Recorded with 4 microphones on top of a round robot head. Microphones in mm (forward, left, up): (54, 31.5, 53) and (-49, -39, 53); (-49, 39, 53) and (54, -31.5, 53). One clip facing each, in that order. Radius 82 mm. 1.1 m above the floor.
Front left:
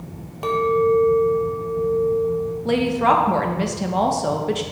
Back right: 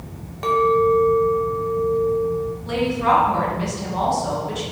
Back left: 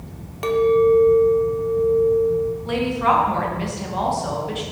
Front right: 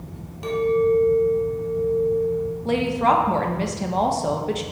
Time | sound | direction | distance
0.4 | a clink | 115° left | 0.8 m
2.6 | a woman speaking | 10° left | 1.1 m